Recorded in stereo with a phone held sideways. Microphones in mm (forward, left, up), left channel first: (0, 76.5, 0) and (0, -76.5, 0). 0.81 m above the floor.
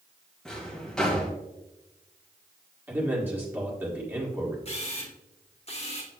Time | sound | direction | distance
0.5 | a drawer | 5° left (ahead or behind) | 1.8 m
2.9 | a man speaking | 15° right (ahead or behind) | 1.7 m
4.7 | a camera shutter | 45° left (ahead or behind) | 1.1 m